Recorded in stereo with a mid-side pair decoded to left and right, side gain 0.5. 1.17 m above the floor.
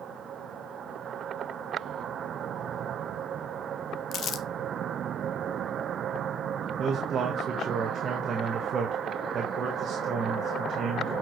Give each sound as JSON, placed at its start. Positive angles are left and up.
{"t": 4.1, "sound": "crumpling", "azimuth_deg": 55, "distance_m": 0.7}
{"t": 6.8, "sound": "a man speaking", "azimuth_deg": -50, "distance_m": 1.2}